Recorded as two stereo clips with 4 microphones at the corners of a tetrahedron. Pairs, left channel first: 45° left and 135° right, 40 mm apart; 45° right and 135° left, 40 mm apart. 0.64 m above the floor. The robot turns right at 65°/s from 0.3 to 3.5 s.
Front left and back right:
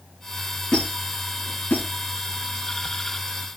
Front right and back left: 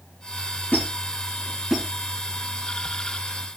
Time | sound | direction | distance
0.7 | a squeak | 20° right | 5 m